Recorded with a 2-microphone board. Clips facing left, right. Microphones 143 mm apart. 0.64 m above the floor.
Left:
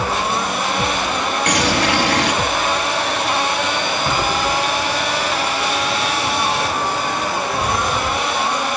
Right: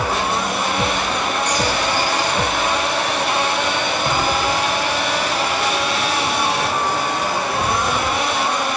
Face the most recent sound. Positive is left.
turn(degrees=0)  # may be behind; listen again after turning